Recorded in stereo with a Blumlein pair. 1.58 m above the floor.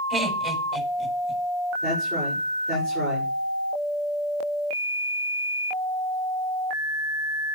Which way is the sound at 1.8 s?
35° right.